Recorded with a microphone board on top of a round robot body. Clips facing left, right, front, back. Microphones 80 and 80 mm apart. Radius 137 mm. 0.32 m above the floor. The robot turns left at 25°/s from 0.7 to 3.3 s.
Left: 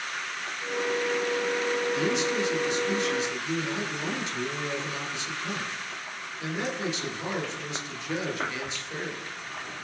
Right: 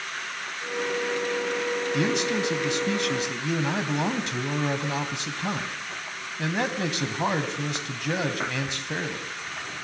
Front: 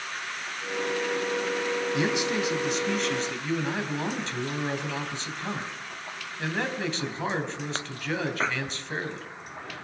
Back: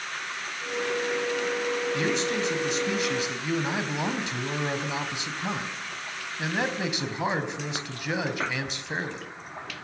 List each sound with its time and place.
1.9 s a man speaking: 70° right, 3.5 m; by 9.3 s 105° right, 3.5 m